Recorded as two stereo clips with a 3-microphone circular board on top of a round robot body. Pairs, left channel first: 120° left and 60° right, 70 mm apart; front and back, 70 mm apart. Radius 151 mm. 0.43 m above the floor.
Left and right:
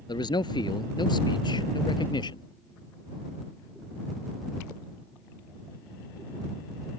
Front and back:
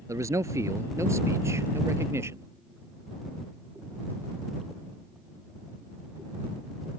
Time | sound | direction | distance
0.1 | a man speaking | 135° left | ?